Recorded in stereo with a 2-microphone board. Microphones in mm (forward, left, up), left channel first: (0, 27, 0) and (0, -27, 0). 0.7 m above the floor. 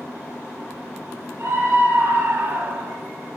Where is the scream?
55° right (ahead or behind), 8 m; by 3.0 s 60° right (ahead or behind), 6 m.